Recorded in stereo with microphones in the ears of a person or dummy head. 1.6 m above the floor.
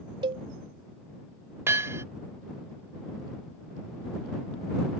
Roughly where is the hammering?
Centre.